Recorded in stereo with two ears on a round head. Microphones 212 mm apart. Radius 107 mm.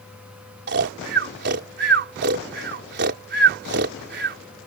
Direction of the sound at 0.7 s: 45° right (ahead or behind).